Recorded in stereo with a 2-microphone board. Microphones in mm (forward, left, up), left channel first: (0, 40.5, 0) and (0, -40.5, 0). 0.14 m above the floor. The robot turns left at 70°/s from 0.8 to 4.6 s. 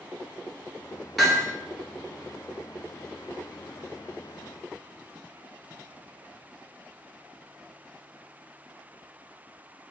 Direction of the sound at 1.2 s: Centre (ahead or behind).